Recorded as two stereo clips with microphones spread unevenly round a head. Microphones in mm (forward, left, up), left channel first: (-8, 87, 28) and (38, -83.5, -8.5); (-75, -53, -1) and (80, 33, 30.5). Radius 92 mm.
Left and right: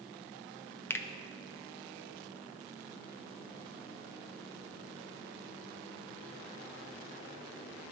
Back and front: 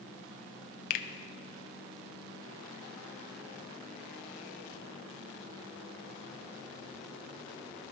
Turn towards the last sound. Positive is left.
turn(degrees=165)